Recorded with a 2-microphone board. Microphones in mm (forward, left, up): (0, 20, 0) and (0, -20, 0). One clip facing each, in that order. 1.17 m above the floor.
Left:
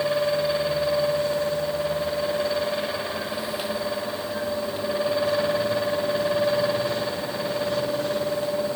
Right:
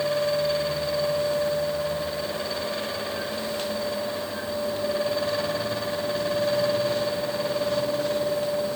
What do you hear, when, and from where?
Only background noise.